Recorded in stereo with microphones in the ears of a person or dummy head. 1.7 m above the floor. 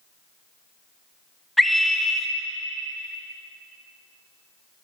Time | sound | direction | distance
1.6 | a scream | centre (ahead or behind) | 1.4 m